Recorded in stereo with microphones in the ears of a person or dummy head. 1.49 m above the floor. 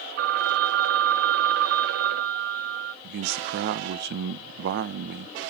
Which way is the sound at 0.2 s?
60° right (ahead or behind).